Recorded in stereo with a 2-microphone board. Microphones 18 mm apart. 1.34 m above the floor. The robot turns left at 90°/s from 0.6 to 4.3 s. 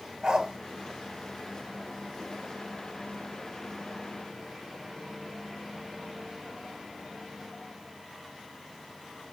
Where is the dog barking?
45° right (ahead or behind), 1.6 m.